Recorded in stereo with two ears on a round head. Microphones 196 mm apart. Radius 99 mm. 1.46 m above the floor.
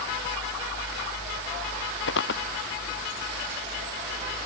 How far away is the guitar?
No guitar in this recording.